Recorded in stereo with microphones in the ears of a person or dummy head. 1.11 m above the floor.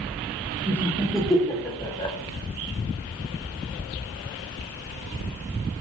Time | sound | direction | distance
0.7 | laughter | 10° right (ahead or behind) | 1.4 m